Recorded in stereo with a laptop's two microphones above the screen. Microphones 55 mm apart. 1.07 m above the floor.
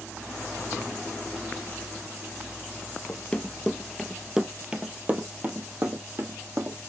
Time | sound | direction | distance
3.1 | running footsteps | 25° left (ahead or behind) | 1.1 m